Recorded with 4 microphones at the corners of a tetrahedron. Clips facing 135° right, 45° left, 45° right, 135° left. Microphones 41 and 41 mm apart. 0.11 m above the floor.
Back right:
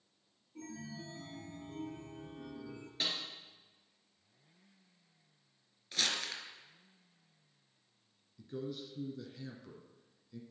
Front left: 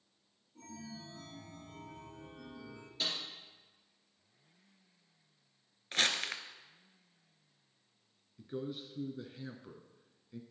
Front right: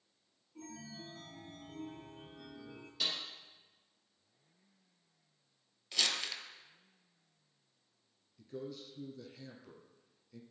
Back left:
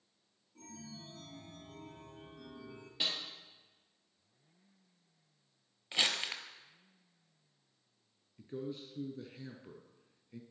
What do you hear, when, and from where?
0.6 s a chime: 110° right, 1.5 m
3.0 s a snare drum: 165° right, 2.5 m
5.9 s crumpling: 80° left, 0.8 m
8.4 s a man speaking: 95° left, 1.3 m